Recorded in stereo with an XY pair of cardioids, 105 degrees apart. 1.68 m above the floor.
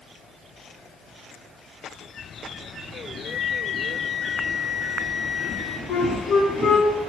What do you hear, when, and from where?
3.2 s a flute: 15° left, 2 m
5.9 s a flute: 60° left, 7.5 m